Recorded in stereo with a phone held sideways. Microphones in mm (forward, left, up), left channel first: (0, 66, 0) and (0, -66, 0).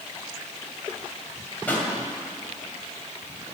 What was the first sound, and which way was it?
A pop, 15° left (ahead or behind).